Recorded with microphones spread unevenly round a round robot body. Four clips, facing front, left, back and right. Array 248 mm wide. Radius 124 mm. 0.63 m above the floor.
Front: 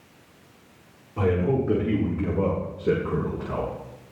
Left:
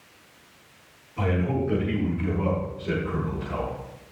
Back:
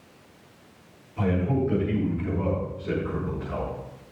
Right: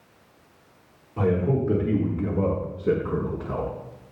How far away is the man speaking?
About 8.5 m.